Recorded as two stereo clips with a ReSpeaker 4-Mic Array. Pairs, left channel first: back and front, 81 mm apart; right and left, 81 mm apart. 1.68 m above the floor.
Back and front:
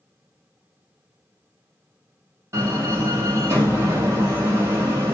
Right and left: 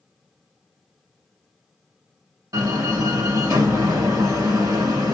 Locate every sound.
2.5 s a door slam: 50° left, 1.4 m